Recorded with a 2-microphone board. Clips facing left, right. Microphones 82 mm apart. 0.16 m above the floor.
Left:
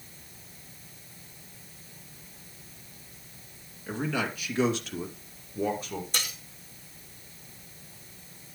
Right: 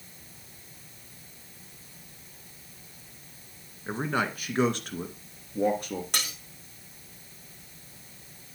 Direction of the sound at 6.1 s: 70° right (ahead or behind).